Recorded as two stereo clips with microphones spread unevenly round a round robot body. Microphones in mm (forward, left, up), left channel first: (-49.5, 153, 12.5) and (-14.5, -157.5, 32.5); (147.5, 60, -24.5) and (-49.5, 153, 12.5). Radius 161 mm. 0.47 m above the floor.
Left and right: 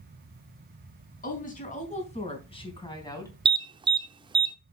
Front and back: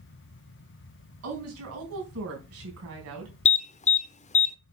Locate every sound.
1.2 s a woman speaking: 160° left, 4 m; by 3.3 s 175° left, 3.5 m
3.5 s an alarm: 10° right, 0.7 m